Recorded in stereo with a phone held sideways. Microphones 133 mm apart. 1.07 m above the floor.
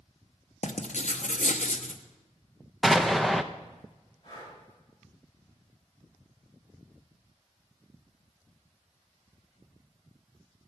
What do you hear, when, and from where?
0.6 s writing: 70° left (ahead or behind), 0.8 m
2.8 s an explosion: centre (ahead or behind), 0.6 m
4.2 s breathing: 35° left (ahead or behind), 7 m